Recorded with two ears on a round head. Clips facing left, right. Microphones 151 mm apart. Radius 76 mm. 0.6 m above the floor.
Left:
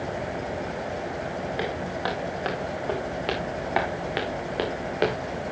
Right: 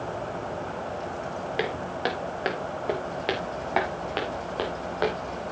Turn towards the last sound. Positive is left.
turn(degrees=30)  # may be behind; listen again after turning